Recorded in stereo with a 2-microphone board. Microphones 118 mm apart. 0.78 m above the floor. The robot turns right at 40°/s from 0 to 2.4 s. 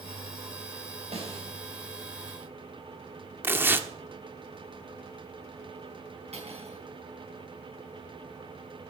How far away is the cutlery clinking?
About 4.5 m.